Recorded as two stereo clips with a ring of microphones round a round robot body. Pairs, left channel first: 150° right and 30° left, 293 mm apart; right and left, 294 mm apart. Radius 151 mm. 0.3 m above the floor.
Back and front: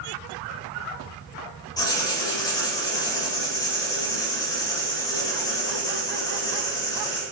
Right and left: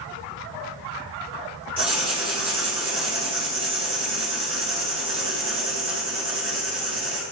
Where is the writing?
145° left, 1.4 m.